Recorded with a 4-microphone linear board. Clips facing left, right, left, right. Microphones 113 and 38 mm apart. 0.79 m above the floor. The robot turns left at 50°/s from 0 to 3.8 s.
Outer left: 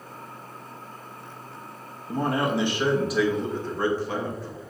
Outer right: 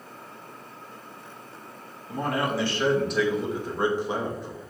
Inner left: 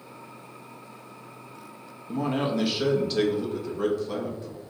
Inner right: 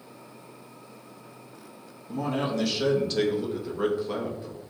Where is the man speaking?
55° left, 0.8 m; by 4.6 s 30° right, 0.8 m.